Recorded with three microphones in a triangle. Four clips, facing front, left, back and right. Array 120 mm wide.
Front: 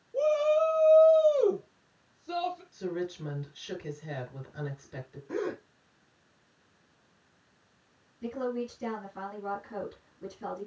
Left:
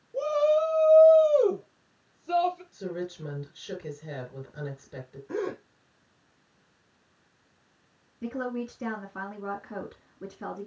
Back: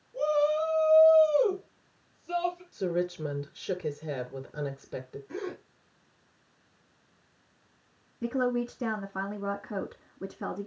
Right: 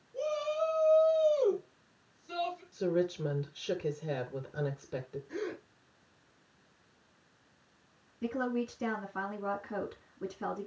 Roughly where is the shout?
Ahead left.